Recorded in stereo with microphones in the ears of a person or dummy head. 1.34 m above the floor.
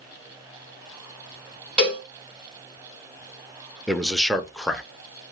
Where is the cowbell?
Centre (ahead or behind), 1.6 m.